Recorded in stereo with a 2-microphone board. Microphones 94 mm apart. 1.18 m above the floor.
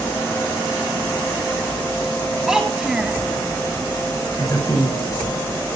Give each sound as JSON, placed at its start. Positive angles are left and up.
{"t": 2.5, "sound": "a child speaking", "side_deg": -5, "distance_m": 4.5}
{"t": 4.4, "sound": "a man speaking", "side_deg": 45, "distance_m": 6.0}